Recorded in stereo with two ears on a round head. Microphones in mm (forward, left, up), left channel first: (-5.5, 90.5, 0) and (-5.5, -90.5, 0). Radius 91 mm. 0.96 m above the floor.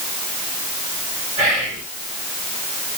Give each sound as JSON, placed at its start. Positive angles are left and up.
{"t": 1.4, "sound": "whispering", "side_deg": -35, "distance_m": 1.5}